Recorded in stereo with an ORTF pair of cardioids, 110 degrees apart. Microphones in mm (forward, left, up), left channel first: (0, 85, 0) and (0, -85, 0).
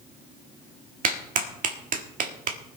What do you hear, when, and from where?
1.0 s a clap: 55° right, 1.6 m